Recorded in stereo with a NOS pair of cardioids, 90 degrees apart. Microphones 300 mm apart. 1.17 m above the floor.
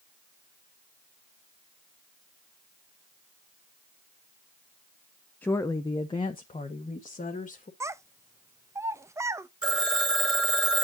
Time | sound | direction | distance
5.4 | a woman speaking | 5° left | 0.5 m
7.8 | a child speaking | 10° right | 0.6 m
9.6 | a phone ringing | 15° right | 2 m